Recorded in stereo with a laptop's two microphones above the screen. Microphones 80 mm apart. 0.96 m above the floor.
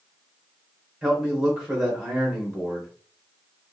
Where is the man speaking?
10° right (ahead or behind), 0.9 m.